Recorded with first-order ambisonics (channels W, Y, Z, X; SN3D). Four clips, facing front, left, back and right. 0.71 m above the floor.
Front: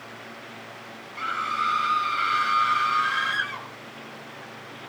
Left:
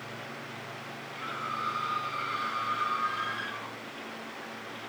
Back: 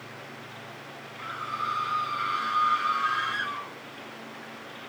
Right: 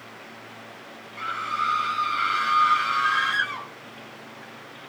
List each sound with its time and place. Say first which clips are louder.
1.2 s a scream: right 8 dB, front 7 dB; 25° right, 3 m; by 3.7 s 55° right, 3.5 m